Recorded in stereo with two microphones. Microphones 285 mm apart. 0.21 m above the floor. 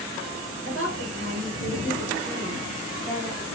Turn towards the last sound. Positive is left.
turn(degrees=10)  # may be behind; listen again after turning